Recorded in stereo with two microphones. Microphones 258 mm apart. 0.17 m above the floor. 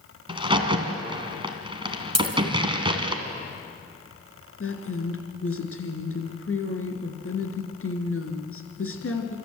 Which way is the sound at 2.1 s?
75° right (ahead or behind).